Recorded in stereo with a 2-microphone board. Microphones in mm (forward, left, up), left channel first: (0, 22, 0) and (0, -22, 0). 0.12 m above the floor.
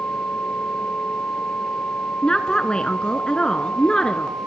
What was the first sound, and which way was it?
A woman speaking, 20° left (ahead or behind).